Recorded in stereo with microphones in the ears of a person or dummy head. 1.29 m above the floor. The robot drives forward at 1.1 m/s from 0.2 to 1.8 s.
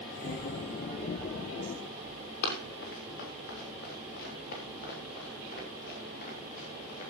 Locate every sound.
2.4 s running footsteps: 60° left (ahead or behind), 6.5 m; by 7.1 s 40° left (ahead or behind), 9 m